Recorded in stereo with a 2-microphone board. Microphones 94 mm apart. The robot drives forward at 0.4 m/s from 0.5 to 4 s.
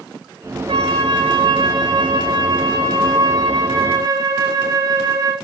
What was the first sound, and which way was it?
A flute, 65° right (ahead or behind).